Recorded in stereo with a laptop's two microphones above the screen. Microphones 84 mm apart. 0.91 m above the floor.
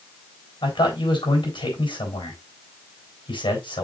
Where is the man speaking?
80° left, 4 m.